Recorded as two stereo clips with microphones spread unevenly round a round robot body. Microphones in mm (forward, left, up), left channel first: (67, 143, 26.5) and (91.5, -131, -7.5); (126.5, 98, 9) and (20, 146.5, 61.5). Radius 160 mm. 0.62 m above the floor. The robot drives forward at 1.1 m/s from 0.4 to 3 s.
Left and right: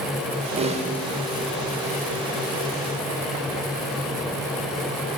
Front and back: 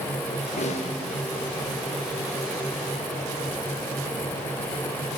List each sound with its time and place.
0.6 s a snare drum: 15° right, 1.3 m; by 0.9 s 20° right, 1.0 m